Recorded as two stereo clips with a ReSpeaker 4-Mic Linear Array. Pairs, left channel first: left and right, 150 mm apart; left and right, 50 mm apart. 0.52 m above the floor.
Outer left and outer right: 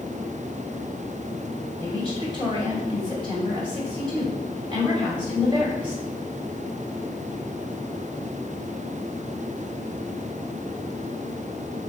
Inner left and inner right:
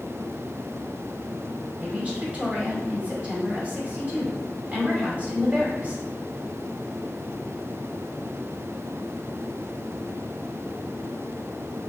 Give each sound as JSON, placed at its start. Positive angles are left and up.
{"t": 1.8, "sound": "a woman speaking", "side_deg": -30, "distance_m": 1.8}